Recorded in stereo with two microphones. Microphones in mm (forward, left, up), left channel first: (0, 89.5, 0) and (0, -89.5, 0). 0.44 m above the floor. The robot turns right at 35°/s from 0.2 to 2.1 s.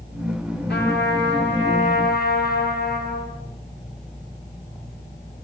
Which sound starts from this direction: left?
A trumpet, at 0.7 s.